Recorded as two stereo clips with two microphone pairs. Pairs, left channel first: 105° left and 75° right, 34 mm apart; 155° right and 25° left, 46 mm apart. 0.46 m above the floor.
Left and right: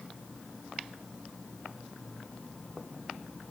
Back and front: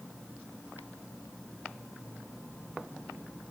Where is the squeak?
I don't hear a squeak.